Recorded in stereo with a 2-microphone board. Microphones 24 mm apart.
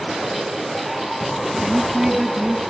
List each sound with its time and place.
1.6 s a woman speaking: 5° right (ahead or behind), 2.5 m